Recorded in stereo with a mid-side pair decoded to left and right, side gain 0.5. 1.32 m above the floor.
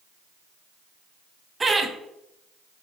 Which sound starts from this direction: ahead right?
Laughter, at 1.6 s.